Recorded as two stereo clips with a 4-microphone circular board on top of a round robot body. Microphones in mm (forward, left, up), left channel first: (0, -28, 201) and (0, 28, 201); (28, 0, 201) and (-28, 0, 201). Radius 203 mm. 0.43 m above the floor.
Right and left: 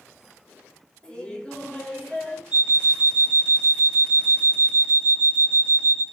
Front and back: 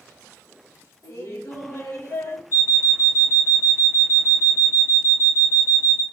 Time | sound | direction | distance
1.0 | laughter | 20° right | 3 m
2.5 | an alarm clock | 10° left | 1.9 m